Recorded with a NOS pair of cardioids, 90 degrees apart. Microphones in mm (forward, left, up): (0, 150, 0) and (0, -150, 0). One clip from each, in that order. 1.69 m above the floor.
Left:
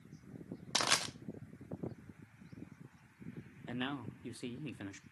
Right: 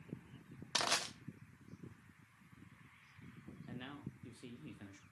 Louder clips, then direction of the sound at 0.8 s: Left 3 dB; 20° left.